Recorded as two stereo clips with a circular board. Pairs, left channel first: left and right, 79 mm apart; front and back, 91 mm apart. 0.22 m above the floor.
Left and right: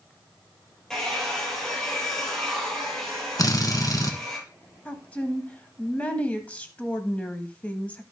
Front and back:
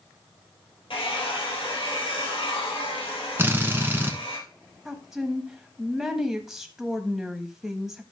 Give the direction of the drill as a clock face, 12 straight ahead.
8 o'clock.